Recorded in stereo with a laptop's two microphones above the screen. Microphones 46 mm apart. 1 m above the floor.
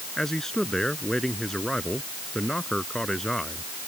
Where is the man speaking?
10° left (ahead or behind).